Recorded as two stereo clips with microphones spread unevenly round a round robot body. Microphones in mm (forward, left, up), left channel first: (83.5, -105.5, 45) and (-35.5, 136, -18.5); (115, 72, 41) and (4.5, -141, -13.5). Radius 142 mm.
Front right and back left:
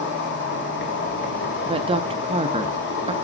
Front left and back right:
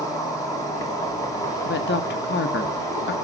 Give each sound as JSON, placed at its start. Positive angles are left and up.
{"t": 0.0, "sound": "an insect", "azimuth_deg": -25, "distance_m": 2.0}
{"t": 1.6, "sound": "a woman speaking", "azimuth_deg": 95, "distance_m": 0.7}